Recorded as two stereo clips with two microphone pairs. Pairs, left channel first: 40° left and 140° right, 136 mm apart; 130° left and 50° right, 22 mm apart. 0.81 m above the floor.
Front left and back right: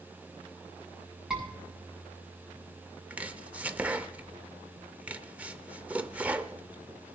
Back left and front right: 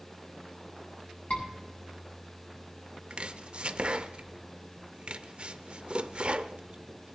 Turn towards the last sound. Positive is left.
turn(degrees=-65)